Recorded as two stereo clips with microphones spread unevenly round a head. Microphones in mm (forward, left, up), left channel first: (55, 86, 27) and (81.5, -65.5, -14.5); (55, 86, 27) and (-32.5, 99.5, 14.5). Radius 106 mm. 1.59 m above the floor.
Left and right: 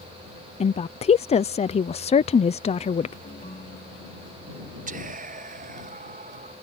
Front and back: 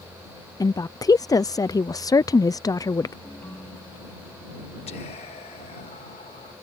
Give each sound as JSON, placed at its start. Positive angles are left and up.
{"t": 0.6, "sound": "a woman speaking", "azimuth_deg": 45}
{"t": 3.2, "sound": "a ringtone", "azimuth_deg": 55}
{"t": 4.9, "sound": "whispering", "azimuth_deg": -45}